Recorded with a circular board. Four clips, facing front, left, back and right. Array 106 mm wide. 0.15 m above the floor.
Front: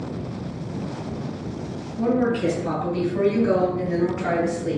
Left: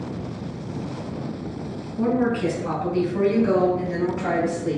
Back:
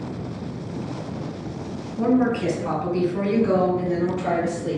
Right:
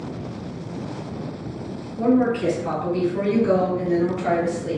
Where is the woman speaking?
Straight behind, 1.6 m; by 4.8 s 20° left, 1.5 m.